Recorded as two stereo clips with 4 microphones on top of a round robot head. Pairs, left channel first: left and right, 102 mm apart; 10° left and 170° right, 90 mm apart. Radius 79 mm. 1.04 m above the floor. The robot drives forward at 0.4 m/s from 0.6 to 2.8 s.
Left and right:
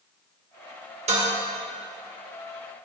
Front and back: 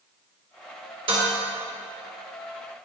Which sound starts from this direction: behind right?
Dishes clattering, at 1.1 s.